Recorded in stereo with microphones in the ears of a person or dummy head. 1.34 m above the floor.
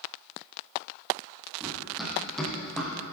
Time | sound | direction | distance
1.6 | running footsteps | 5° right (ahead or behind) | 2.5 m